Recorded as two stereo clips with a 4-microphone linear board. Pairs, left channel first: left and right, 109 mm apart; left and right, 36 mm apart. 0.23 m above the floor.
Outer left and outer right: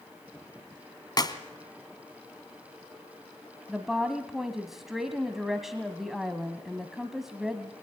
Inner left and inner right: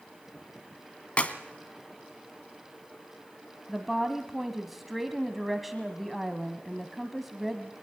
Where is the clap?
40° left (ahead or behind), 2.0 m.